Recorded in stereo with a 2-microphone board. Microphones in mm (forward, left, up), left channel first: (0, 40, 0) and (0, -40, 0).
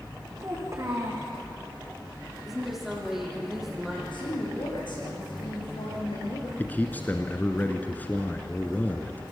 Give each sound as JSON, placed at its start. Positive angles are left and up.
{"t": 0.4, "sound": "a child speaking", "side_deg": -35, "distance_m": 6.0}
{"t": 2.5, "sound": "a woman speaking", "side_deg": -5, "distance_m": 6.0}
{"t": 4.1, "sound": "a woman speaking", "side_deg": 70, "distance_m": 7.0}
{"t": 6.6, "sound": "a man speaking", "side_deg": 20, "distance_m": 1.4}